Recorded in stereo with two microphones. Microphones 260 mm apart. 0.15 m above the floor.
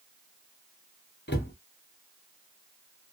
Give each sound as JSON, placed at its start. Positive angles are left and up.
{"t": 1.3, "sound": "a cupboard door", "side_deg": 40, "distance_m": 0.9}